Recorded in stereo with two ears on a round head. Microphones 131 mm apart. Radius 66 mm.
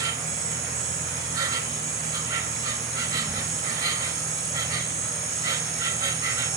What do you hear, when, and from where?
0.0 s an insect: 25° right (ahead or behind), 1.0 m